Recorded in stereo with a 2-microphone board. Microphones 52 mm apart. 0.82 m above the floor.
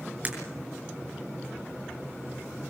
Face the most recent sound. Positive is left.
turn(degrees=-35)  # may be behind; listen again after turning